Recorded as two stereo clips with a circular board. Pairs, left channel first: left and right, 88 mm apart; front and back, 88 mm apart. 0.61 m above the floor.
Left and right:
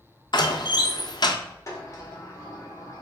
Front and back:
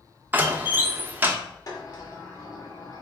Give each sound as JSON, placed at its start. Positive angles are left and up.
{"t": 0.3, "sound": "a door slam", "azimuth_deg": 110, "distance_m": 0.5}
{"t": 1.7, "sound": "a sliding door", "azimuth_deg": 40, "distance_m": 1.2}